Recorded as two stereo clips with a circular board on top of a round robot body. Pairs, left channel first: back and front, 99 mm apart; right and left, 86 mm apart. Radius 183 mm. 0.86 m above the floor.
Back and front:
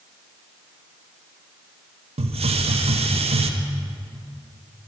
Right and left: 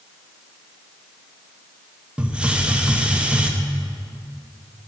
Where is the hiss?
10° left, 0.8 m.